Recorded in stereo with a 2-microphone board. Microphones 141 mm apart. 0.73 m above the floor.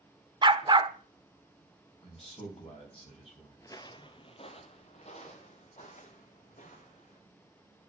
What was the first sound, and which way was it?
A dog barking, 35° right (ahead or behind).